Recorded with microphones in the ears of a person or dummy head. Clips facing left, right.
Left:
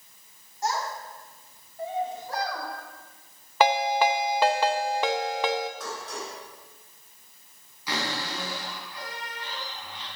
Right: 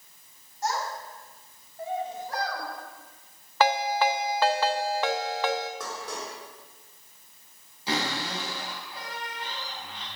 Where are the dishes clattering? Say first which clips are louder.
Even; 60° right (ahead or behind), 3.5 m.